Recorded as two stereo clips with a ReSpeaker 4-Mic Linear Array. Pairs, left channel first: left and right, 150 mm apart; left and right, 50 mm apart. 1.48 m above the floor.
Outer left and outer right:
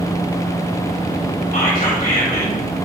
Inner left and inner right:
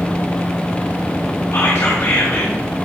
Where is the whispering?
55° left (ahead or behind), 2.5 m.